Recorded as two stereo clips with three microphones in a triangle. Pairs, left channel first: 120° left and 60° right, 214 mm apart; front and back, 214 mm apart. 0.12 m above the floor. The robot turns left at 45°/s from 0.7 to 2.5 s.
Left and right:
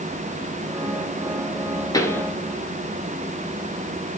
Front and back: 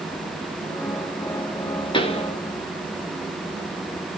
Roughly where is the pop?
Ahead left.